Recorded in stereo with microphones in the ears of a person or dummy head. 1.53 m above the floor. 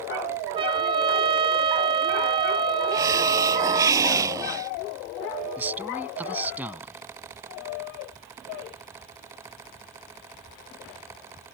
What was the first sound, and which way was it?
A trumpet, 30° right (ahead or behind).